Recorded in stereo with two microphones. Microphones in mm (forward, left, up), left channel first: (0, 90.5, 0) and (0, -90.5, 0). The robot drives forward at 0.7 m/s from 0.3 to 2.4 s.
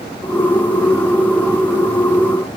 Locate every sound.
Only background noise.